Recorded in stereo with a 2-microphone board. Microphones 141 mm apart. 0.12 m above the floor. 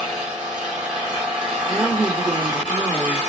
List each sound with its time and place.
0.0 s an engine running: 10° right (ahead or behind), 1.5 m
1.7 s a woman speaking: 20° right (ahead or behind), 1.2 m